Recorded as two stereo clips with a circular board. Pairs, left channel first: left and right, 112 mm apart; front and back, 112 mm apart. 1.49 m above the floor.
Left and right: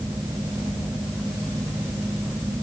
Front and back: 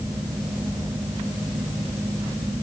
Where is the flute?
I don't hear a flute.